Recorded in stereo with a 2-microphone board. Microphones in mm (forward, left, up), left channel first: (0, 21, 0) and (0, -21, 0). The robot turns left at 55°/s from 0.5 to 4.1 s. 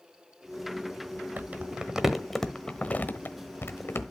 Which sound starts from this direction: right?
Crumpling, at 1.4 s.